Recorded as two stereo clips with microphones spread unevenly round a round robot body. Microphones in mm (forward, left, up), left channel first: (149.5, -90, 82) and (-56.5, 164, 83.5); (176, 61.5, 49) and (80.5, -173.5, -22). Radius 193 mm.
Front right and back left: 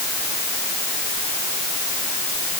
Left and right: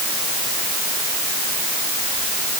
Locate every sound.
Only background noise.